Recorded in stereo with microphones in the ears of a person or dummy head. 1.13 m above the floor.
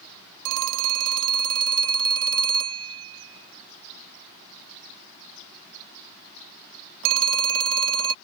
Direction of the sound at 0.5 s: 75° right (ahead or behind).